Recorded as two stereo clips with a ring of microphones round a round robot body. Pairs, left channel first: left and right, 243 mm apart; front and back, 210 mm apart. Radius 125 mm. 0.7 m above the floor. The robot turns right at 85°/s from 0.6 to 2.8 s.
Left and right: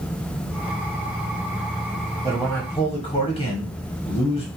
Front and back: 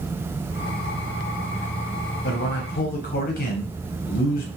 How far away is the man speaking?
About 0.8 m.